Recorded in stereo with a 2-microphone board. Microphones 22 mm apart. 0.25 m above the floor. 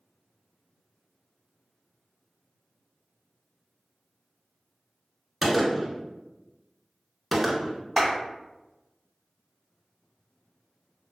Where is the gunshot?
5° right (ahead or behind), 0.7 m.